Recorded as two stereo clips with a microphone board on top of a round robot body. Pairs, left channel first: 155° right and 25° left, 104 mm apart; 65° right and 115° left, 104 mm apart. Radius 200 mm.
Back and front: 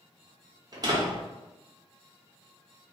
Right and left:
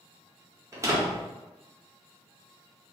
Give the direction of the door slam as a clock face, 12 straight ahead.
10 o'clock.